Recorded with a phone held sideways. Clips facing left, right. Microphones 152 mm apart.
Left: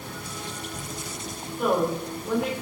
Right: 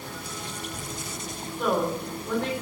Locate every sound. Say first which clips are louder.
1.6 s a woman speaking: left 2 dB; 5° left (ahead or behind), 6 m